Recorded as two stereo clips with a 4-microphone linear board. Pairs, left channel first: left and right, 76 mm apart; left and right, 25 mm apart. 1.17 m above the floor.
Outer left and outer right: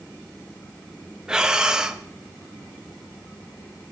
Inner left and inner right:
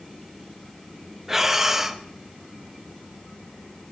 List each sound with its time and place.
1.3 s breathing: 10° right (ahead or behind), 0.7 m